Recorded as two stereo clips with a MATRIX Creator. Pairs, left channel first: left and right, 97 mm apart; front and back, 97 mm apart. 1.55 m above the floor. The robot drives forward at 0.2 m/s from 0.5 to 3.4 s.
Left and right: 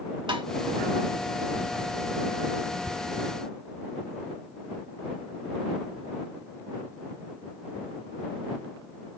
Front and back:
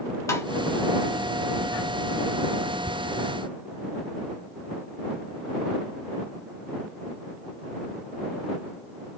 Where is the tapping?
55° right, 0.6 m.